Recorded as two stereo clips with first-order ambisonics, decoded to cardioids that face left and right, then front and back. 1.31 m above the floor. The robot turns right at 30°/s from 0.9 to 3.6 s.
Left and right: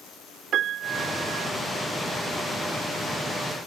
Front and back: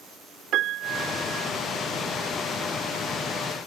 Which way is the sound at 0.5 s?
135° right.